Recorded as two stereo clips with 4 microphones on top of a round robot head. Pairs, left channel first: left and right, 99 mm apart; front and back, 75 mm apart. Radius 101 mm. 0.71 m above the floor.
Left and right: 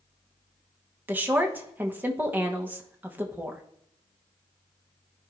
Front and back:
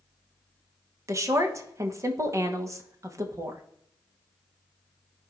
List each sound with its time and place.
1.1 s a woman speaking: 155° right, 1.2 m